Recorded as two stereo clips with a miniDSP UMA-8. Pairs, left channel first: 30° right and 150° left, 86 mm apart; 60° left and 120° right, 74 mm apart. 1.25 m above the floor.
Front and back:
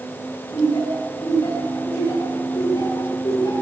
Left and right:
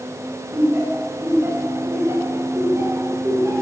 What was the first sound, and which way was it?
Laughter, 55° right.